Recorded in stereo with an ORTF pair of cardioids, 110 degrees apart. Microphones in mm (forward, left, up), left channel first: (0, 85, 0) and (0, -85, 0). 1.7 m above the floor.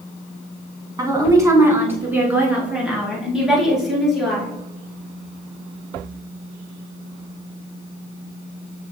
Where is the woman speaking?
20° right, 2.5 m; by 4.5 s straight ahead, 5 m.